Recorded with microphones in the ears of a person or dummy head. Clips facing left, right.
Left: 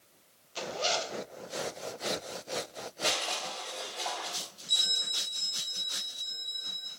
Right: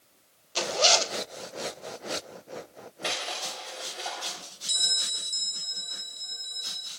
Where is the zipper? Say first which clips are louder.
Right 7 dB; 75° right (ahead or behind), 0.6 m.